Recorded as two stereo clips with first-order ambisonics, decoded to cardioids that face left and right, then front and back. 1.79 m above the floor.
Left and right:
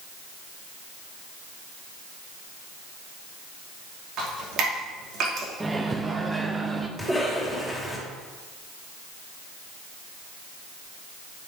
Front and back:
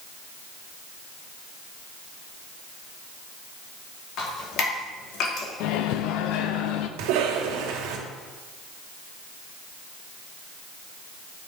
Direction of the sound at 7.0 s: 175° right.